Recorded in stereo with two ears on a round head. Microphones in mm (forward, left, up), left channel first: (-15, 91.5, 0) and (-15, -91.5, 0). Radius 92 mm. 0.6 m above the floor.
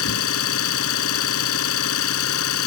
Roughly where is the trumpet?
I don't hear a trumpet.